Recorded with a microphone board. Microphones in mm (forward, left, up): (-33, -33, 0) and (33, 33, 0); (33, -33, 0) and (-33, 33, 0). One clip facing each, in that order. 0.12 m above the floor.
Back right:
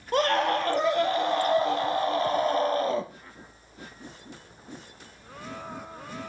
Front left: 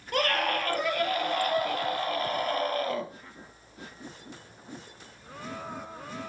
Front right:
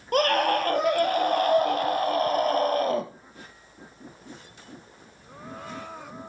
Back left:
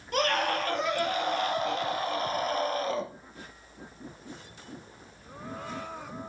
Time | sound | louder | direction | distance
0.1 | a scream | back right 4 dB, front right 5 dB | 75° right | 2.5 m